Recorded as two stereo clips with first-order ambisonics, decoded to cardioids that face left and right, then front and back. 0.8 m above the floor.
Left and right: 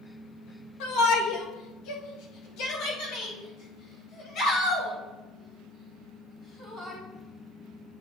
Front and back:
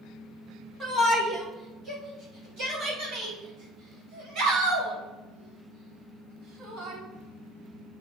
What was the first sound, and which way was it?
A shout, 95° left.